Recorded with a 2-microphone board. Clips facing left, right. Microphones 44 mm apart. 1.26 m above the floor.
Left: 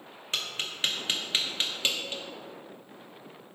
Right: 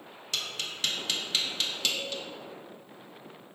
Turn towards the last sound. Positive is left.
turn(degrees=30)  # may be behind; listen again after turning